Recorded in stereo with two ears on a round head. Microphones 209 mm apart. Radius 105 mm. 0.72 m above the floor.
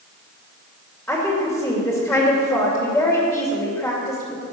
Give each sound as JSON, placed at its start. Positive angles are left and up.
{"t": 1.1, "sound": "a woman speaking", "side_deg": 5, "distance_m": 2.5}